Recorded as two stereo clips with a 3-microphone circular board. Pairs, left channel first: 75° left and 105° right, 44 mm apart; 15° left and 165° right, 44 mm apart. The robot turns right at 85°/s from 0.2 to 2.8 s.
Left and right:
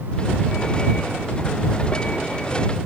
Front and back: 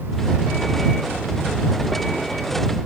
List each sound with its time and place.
Only background noise.